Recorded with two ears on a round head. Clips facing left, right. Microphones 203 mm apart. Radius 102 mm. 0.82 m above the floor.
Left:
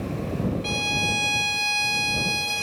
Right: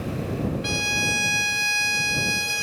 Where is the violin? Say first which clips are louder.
Even; 15° right (ahead or behind).